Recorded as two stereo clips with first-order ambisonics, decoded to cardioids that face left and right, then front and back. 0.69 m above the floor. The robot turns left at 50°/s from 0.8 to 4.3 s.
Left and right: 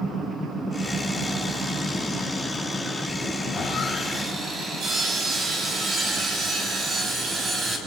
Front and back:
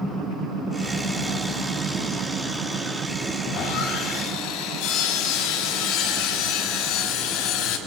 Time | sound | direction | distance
3.4 | sawing | 15° left | 5 m